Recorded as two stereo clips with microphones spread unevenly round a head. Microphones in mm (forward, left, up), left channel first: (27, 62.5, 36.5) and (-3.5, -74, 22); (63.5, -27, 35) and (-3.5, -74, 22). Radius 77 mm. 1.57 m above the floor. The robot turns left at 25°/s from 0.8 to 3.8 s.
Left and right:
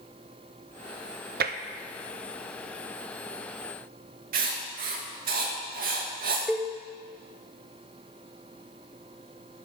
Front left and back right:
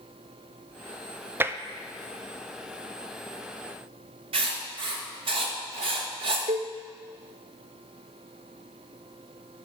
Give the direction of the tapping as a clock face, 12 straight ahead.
3 o'clock.